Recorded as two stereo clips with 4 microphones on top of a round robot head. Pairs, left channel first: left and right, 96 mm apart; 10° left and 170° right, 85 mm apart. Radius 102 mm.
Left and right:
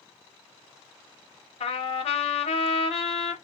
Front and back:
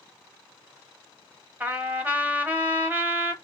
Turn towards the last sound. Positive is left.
turn(degrees=115)